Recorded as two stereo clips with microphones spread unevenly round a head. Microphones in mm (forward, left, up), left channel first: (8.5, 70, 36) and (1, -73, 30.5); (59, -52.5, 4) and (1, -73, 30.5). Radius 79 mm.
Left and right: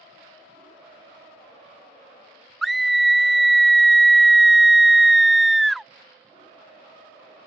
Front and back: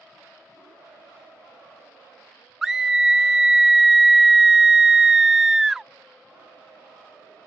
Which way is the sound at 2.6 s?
10° right.